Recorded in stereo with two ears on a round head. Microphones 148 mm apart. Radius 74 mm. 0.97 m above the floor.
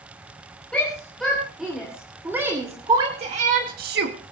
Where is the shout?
5° left (ahead or behind), 4.5 m; by 4.2 s 70° right (ahead or behind), 1.8 m.